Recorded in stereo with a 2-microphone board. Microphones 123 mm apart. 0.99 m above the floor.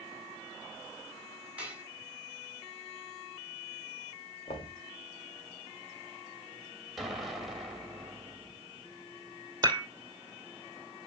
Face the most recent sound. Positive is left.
turn(degrees=-35)  # may be behind; listen again after turning